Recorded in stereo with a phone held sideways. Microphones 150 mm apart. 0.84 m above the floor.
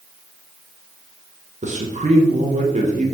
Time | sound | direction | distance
1.6 | a man speaking | 55° right (ahead or behind) | 0.8 m